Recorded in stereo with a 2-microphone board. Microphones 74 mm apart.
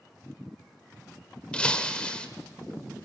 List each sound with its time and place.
1.5 s breaking glass: 15° left (ahead or behind), 1.5 m